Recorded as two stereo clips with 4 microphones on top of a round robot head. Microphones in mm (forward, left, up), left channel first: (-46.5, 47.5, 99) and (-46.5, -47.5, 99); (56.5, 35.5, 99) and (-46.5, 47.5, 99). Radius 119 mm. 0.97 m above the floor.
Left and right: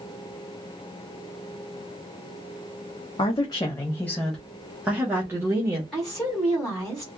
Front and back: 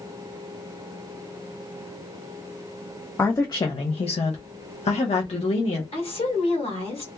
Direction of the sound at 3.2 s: 60° left.